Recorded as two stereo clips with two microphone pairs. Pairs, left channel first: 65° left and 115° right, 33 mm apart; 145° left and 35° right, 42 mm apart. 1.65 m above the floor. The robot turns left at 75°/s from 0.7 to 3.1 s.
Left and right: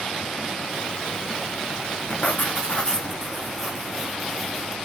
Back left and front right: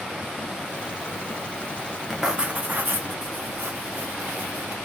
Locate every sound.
2.1 s writing: 50° left, 0.8 m; by 4.8 s 25° right, 0.8 m